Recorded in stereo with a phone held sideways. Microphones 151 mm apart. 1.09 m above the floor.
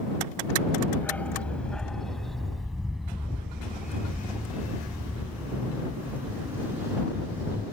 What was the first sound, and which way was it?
A dog barking, 10° left (ahead or behind).